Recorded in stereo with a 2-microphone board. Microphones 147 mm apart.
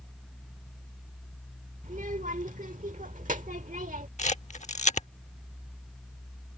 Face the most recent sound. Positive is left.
turn(degrees=55)  # may be behind; listen again after turning